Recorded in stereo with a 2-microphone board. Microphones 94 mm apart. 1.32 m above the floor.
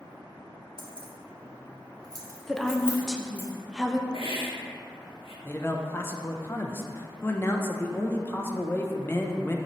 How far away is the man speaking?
About 0.6 m.